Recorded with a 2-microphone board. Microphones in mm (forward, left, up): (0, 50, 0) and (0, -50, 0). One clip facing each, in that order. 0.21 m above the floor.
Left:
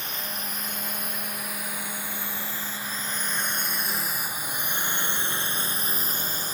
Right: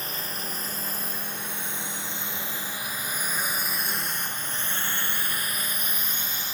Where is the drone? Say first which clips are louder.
Even; 40° right (ahead or behind); by 6.5 s 45° left (ahead or behind).